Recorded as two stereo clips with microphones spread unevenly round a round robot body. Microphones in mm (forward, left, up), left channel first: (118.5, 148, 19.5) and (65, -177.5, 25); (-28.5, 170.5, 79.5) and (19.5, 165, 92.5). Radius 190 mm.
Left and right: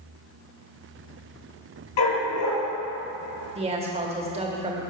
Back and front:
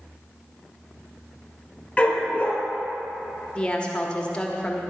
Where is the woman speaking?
160° right, 0.9 m.